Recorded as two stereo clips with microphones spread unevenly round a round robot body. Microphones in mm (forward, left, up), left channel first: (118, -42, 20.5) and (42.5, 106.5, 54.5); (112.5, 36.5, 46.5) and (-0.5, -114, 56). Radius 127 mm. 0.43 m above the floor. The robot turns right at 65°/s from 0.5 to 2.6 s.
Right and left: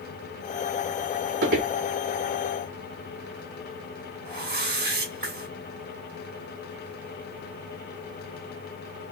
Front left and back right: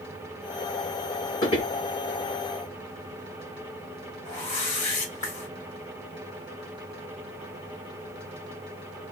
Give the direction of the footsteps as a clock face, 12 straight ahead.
8 o'clock.